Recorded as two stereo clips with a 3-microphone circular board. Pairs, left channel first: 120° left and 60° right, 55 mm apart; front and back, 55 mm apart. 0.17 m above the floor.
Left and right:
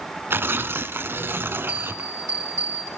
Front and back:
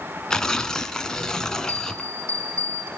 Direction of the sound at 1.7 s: 150° left.